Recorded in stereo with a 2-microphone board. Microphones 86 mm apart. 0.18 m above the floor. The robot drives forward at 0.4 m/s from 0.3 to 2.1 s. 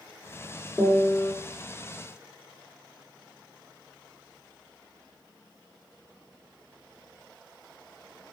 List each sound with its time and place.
0.8 s a piano: 25° left (ahead or behind), 1.1 m; by 1.3 s 30° left (ahead or behind), 1.0 m